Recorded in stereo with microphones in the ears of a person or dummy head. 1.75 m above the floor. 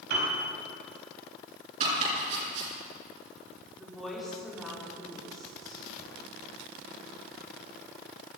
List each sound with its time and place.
0.1 s a piano: 65° right (ahead or behind), 4 m
1.8 s chopping: 45° right (ahead or behind), 7.5 m
3.8 s a woman speaking: 5° right (ahead or behind), 5 m